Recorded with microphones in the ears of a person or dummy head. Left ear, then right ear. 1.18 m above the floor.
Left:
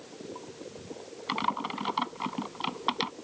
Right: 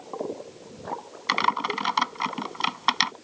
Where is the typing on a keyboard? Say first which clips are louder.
Right 7 dB; 60° right (ahead or behind).